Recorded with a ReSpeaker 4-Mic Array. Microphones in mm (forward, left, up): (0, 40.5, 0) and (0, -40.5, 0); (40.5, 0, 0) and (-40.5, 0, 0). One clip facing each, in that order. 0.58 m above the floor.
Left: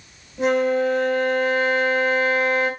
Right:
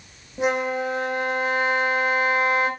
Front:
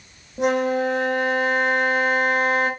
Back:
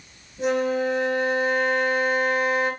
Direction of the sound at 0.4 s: 20° right.